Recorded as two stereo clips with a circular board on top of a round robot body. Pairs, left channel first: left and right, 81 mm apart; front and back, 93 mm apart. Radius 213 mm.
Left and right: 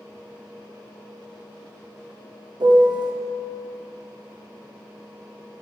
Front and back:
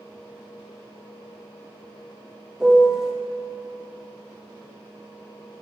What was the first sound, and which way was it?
A piano, 95° right.